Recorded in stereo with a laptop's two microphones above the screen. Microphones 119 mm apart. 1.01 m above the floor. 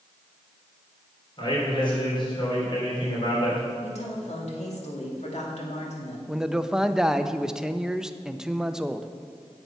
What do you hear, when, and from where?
1.4 s a man speaking: 45° left (ahead or behind), 3.5 m
3.8 s a woman speaking: 70° left (ahead or behind), 2.5 m
6.3 s a man speaking: 5° right (ahead or behind), 0.6 m